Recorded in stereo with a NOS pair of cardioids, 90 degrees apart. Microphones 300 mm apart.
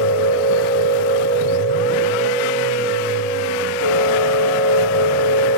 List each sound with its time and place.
0.0 s a machine running: 60° left, 4.5 m